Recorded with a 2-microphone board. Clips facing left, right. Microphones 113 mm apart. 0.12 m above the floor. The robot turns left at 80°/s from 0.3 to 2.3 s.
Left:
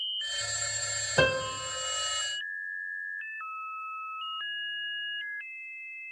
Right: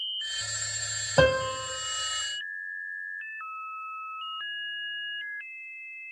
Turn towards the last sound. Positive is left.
turn(degrees=-115)